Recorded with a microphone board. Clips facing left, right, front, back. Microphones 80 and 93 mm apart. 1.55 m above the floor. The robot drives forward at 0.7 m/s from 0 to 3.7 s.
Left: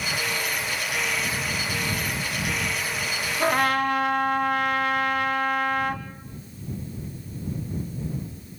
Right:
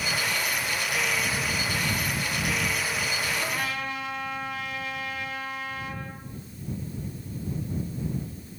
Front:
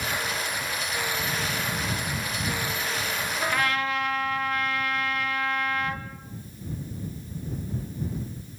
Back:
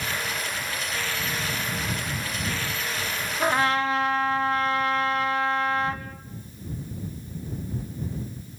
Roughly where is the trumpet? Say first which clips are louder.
Left 9 dB, back 5 dB; behind left.